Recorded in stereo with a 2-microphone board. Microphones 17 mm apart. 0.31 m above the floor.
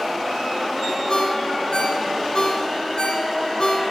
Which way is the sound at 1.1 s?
55° left (ahead or behind).